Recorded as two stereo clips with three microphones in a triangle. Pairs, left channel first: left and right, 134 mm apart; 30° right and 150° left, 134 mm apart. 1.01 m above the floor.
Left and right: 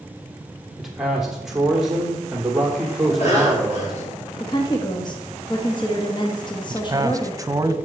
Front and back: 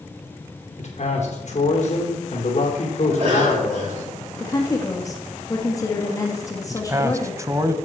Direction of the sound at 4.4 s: 35° left.